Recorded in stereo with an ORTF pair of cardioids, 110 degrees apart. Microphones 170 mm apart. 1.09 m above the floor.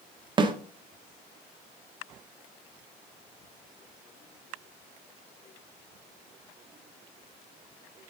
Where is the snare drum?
25° right, 1.3 m.